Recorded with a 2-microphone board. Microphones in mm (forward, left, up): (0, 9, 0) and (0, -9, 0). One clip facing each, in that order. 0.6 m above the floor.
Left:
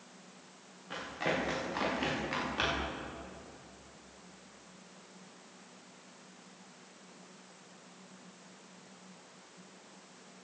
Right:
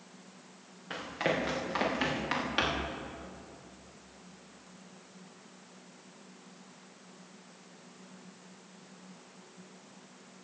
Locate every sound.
0.9 s running footsteps: 30° right (ahead or behind), 5.5 m; by 2.9 s 55° right (ahead or behind), 5.5 m